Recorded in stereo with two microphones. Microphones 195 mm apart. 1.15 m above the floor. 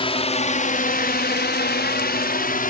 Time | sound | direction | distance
0.0 | a drone | 30° left (ahead or behind) | ?